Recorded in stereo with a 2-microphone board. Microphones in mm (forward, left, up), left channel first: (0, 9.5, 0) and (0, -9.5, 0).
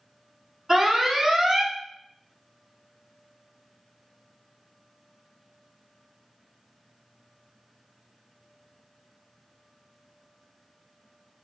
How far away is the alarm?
About 1.1 m.